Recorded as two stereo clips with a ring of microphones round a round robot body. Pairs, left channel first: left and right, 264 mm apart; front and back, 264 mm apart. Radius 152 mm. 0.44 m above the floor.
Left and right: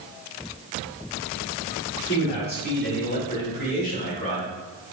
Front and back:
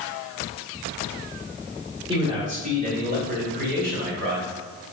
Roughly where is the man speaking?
Behind left.